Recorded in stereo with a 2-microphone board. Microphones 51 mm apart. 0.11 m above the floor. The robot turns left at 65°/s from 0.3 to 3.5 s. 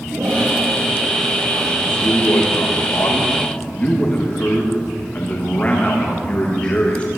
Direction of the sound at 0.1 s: 35° right (ahead or behind).